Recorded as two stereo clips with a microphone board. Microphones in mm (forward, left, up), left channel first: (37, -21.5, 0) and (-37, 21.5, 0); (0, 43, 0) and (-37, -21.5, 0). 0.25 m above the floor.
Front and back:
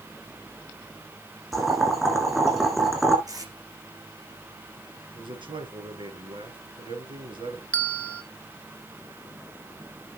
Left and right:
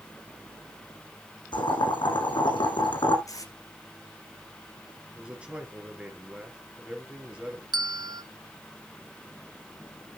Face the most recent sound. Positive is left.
turn(degrees=-105)